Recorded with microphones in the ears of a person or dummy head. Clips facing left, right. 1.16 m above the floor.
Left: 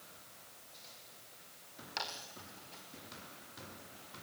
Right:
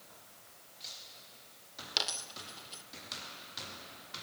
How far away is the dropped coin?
About 1.3 m.